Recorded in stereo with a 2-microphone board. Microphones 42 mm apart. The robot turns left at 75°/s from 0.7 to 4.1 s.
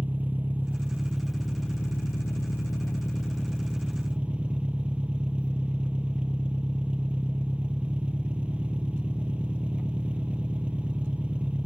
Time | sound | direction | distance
0.0 | an engine running | 135° right | 0.9 m